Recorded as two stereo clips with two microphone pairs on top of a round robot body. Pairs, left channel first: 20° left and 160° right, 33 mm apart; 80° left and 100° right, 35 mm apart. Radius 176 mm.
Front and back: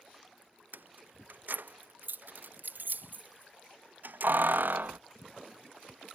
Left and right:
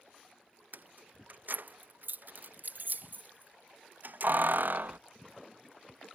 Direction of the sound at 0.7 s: 140° right.